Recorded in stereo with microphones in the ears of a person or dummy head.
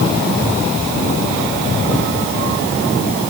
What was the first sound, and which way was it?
Only background noise.